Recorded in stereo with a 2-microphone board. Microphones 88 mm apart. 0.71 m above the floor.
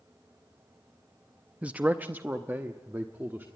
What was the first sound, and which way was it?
A man speaking, 15° right (ahead or behind).